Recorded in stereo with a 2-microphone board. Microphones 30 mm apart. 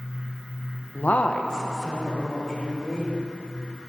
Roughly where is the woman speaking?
Left.